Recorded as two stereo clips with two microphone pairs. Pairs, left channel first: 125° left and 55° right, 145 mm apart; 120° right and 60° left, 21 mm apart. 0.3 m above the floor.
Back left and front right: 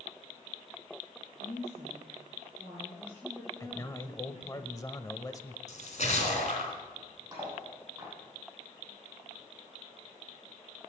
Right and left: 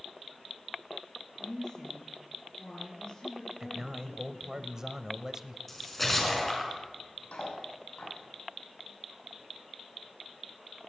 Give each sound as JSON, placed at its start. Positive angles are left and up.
{"t": 1.4, "sound": "a woman speaking", "azimuth_deg": -175, "distance_m": 4.5}
{"t": 3.6, "sound": "a man speaking", "azimuth_deg": 85, "distance_m": 1.0}
{"t": 5.7, "sound": "a splash", "azimuth_deg": 155, "distance_m": 3.5}
{"t": 7.3, "sound": "cutlery clinking", "azimuth_deg": -125, "distance_m": 7.0}